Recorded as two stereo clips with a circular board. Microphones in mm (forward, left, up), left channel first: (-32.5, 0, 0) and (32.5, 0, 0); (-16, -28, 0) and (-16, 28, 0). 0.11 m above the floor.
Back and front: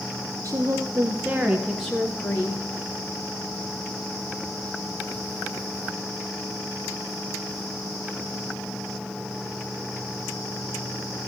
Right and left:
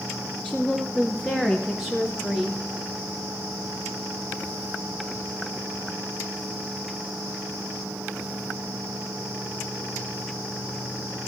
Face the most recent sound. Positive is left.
turn(degrees=180)